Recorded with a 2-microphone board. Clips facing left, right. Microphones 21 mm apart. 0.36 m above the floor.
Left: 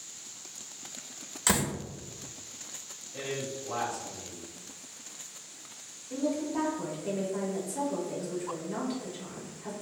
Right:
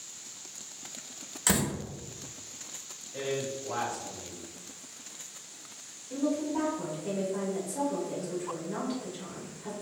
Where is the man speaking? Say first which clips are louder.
Right 3 dB; 35° right (ahead or behind), 1.3 m.